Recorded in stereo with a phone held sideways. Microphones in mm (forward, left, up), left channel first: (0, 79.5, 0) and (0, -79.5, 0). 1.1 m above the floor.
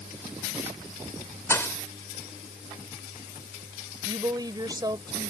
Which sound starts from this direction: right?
A woman speaking, at 4.0 s.